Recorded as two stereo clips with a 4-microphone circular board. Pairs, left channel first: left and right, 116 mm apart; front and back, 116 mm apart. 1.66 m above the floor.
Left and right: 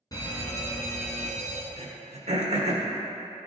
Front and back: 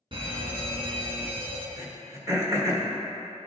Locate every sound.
0.1 s a fire alarm: 145° left, 1.8 m
1.8 s throat clearing: 120° right, 1.3 m